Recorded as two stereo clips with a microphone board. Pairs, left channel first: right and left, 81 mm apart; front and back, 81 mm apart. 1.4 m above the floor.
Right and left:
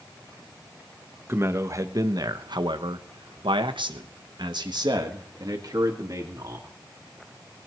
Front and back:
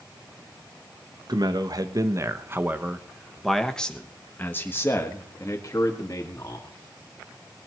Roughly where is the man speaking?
Behind left.